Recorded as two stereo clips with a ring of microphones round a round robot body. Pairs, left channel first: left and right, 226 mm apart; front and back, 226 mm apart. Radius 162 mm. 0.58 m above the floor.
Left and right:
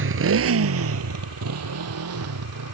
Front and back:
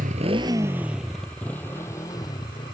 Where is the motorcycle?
115° right; by 2.7 s 75° right.